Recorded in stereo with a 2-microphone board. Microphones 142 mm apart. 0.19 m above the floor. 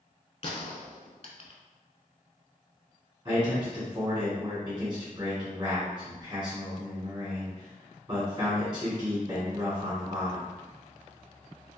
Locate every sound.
0.4 s a gunshot: 45° left (ahead or behind), 0.5 m
3.2 s a man speaking: 25° right (ahead or behind), 1.7 m